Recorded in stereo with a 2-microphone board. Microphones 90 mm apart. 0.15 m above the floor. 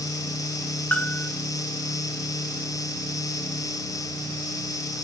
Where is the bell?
15° left (ahead or behind), 0.8 m.